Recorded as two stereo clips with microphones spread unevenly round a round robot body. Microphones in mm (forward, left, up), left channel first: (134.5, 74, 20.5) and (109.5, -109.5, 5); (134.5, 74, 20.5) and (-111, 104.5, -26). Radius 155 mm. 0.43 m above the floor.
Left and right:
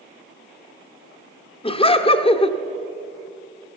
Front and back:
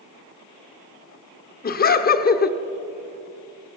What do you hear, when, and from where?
1.6 s laughter: 35° left, 0.9 m